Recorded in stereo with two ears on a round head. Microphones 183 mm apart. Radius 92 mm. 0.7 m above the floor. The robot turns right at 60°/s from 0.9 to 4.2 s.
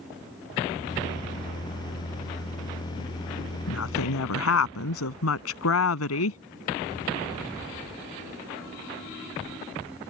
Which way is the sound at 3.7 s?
65° left.